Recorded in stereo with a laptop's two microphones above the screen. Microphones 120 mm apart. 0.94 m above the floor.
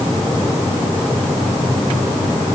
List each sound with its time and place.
Only background noise.